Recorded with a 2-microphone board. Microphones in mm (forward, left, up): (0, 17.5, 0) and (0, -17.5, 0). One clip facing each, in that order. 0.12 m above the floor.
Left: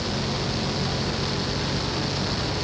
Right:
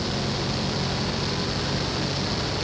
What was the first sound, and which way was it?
Only background noise.